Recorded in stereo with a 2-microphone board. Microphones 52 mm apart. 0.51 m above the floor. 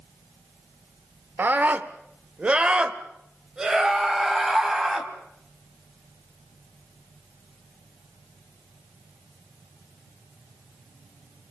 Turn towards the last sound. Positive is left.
turn(degrees=-5)  # may be behind; listen again after turning